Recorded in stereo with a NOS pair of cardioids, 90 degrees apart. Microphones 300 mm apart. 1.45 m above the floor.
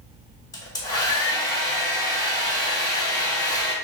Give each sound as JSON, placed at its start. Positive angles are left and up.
{"t": 0.5, "sound": "a hair dryer", "azimuth_deg": 15, "distance_m": 0.8}